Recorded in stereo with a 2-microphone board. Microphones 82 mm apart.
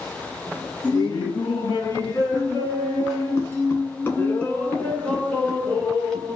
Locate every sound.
0.8 s laughter: 55° left (ahead or behind), 1.7 m; by 6.4 s 10° left (ahead or behind), 3 m